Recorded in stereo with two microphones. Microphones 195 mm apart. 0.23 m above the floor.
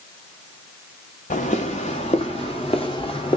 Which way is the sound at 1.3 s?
40° left (ahead or behind).